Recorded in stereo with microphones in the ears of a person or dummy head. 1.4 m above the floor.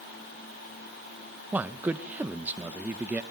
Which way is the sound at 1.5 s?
5° right (ahead or behind).